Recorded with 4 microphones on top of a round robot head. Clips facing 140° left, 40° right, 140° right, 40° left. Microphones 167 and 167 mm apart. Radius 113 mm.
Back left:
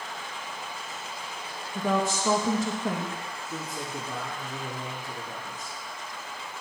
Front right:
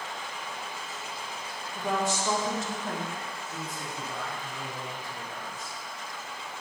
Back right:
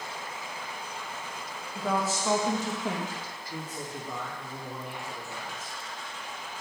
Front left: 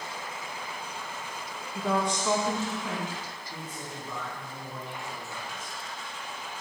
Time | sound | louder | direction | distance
1.8 | a woman speaking | back left 3 dB, front left 1 dB | 125° left | 1.5 m
3.5 | a man speaking | back left 5 dB, back right 4 dB | 145° left | 2 m